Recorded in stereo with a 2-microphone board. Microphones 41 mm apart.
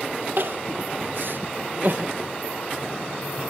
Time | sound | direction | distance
0.4 | crying | 60° right (ahead or behind) | 0.9 m